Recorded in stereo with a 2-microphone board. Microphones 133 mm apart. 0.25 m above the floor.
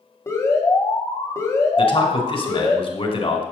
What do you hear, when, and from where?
0.3 s an alarm: 25° left (ahead or behind), 1.9 m
1.8 s a man speaking: 45° left (ahead or behind), 1.7 m